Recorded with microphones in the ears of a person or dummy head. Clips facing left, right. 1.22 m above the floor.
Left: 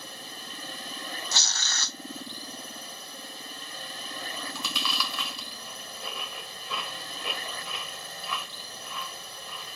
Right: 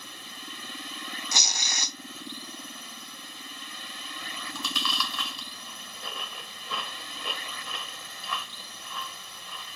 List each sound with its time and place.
0.0 s a drone: 40° left (ahead or behind)
1.3 s tearing paper: 15° right (ahead or behind)
4.2 s chewing: 5° left (ahead or behind)